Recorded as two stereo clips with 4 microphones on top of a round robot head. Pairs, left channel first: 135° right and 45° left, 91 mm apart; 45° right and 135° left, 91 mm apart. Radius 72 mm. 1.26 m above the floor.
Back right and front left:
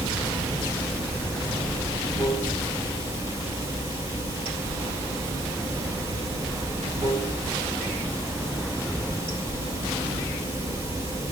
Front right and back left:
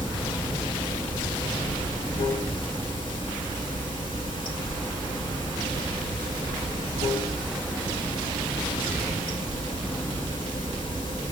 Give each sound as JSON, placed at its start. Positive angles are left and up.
{"t": 0.0, "sound": "running water", "azimuth_deg": -20, "distance_m": 4.0}